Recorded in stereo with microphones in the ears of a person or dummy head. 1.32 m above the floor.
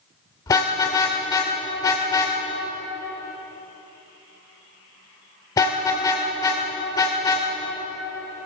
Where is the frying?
I don't hear frying.